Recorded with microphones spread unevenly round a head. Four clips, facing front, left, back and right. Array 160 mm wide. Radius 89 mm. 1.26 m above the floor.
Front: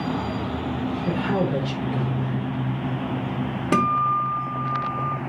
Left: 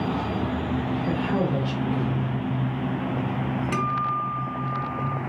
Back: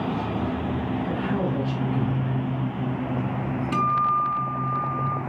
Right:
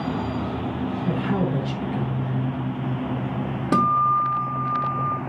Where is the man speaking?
5° right, 4 m.